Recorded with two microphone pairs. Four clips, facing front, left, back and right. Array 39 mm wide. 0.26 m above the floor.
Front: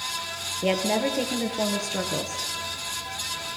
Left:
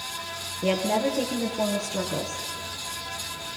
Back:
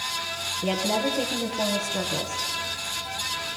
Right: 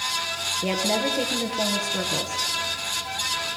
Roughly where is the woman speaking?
Ahead.